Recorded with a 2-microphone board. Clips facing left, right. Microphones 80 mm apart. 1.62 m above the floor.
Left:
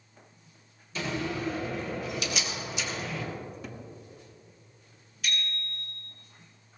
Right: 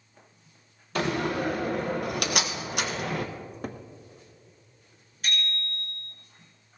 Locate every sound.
0.9 s a door slam: 60° right (ahead or behind), 1.2 m
3.4 s a cupboard door: 50° right (ahead or behind), 0.8 m
5.2 s a bicycle bell: 40° right (ahead or behind), 4 m